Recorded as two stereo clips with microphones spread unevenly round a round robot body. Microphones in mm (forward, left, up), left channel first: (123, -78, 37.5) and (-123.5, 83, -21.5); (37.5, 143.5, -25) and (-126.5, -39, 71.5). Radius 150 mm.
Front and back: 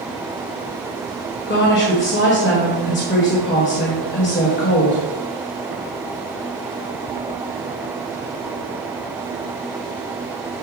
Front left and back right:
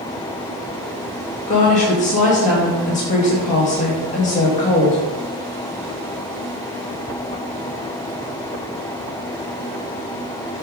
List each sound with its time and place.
1.5 s a woman speaking: 20° left, 1.7 m